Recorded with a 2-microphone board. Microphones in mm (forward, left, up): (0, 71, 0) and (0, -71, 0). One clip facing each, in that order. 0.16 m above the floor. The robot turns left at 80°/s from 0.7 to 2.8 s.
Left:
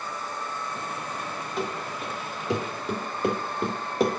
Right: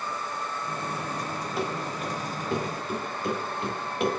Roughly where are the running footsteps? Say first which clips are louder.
Even; centre.